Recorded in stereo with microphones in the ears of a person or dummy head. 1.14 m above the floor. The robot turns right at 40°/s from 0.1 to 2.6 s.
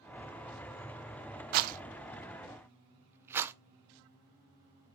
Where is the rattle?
50° right (ahead or behind), 0.6 m; by 3.5 s 15° right (ahead or behind), 0.6 m.